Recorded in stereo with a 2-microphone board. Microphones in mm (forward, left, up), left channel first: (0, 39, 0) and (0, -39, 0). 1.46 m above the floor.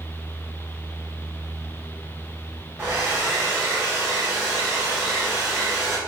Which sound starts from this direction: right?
A hair dryer, at 2.8 s.